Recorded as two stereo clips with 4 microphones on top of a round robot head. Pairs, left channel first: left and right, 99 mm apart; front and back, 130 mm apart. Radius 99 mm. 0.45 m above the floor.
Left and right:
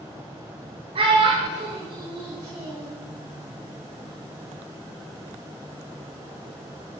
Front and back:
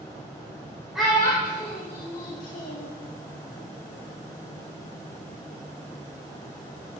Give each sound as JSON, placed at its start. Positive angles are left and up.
{"t": 0.9, "sound": "a child speaking", "azimuth_deg": -95, "distance_m": 1.2}